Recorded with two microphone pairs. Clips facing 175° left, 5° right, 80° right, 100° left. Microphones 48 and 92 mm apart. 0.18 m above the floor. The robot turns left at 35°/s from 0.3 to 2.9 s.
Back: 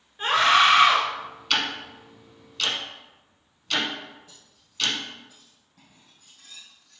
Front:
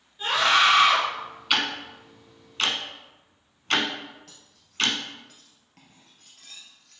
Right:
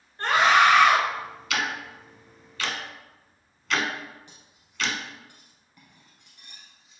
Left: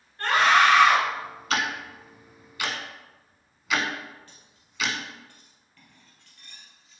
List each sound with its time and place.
0.2 s a scream: 145° right, 2 m; by 1.0 s 170° right, 2 m
1.5 s ticking: 70° left, 1.0 m; by 5.0 s 25° left, 1.0 m
4.3 s cutlery clinking: 5° right, 2.5 m